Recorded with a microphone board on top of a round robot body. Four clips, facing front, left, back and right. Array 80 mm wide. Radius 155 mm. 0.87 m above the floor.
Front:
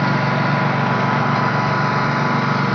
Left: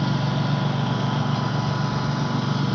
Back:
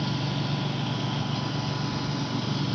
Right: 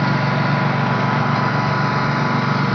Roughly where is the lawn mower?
Ahead right.